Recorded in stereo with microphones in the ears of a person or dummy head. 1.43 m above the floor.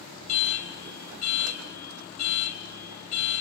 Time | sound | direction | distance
0.3 | an alarm | 75° left (ahead or behind) | 1.3 m